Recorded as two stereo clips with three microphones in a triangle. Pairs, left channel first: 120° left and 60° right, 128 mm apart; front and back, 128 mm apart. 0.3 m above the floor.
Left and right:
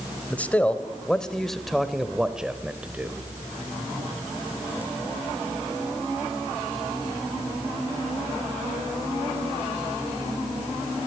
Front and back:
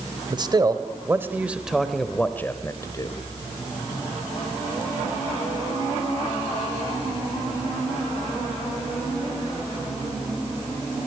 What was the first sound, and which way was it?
A man speaking, 170° right.